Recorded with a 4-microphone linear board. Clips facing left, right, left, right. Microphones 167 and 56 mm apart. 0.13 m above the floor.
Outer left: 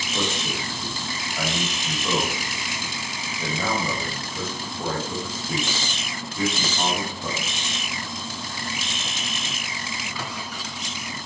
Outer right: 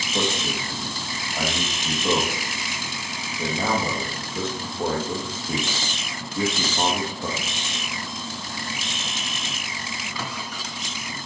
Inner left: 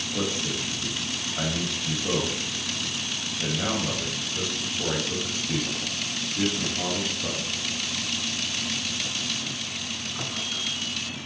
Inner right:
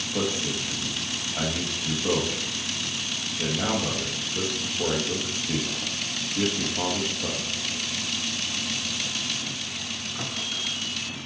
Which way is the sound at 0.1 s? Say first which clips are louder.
Outer right 2 dB, inner right 2 dB; 25° right (ahead or behind).